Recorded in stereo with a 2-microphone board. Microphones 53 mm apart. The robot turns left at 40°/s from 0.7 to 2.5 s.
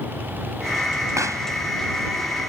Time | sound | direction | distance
1.2 | a pop | 75° right (ahead or behind) | ?